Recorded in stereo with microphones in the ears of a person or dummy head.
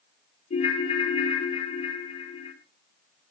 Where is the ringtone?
35° left (ahead or behind), 2.5 m.